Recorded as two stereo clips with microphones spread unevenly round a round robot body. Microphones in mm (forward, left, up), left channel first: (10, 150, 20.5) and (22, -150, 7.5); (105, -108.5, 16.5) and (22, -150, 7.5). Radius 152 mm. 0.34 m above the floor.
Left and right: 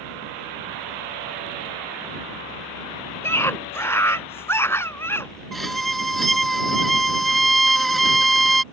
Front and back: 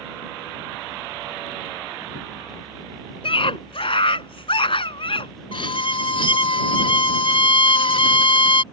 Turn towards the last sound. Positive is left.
turn(degrees=5)